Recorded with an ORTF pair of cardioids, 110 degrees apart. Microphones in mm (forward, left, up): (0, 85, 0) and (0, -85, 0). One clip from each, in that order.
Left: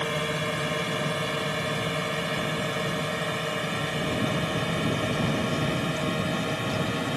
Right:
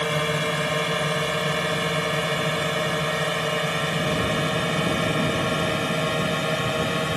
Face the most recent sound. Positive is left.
turn(degrees=-30)